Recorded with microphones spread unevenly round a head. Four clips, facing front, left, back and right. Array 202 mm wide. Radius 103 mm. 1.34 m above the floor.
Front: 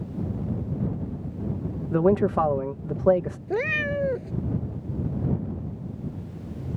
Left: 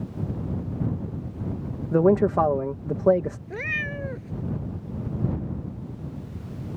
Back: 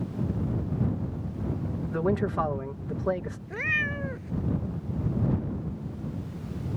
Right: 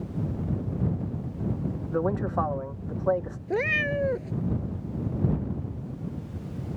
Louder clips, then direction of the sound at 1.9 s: Left 9 dB, front 7 dB; 65° left.